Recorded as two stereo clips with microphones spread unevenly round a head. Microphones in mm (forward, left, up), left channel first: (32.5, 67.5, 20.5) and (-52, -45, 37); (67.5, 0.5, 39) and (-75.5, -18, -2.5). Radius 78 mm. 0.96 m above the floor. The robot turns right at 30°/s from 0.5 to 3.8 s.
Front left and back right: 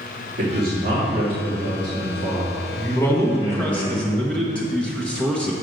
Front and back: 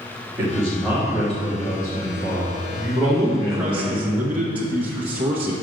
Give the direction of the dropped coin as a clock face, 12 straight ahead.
No dropped coin in this recording.